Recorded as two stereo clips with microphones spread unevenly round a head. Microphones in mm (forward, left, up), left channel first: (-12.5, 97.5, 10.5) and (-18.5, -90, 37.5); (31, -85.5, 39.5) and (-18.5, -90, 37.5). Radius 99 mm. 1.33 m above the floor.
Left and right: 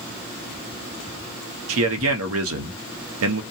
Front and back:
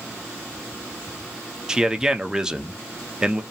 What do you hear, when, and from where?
1.7 s a man speaking: 100° right, 0.8 m